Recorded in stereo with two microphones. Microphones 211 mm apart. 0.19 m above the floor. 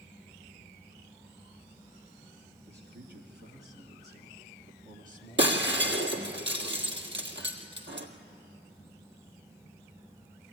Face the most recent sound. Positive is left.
turn(degrees=-65)  # may be behind; listen again after turning